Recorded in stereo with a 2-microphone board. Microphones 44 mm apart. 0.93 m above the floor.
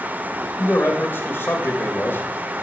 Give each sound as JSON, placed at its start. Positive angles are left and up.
{"t": 0.6, "sound": "a man speaking", "side_deg": 55, "distance_m": 1.6}